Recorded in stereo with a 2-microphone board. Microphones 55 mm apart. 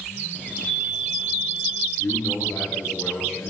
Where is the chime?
30° left (ahead or behind), 2.5 m.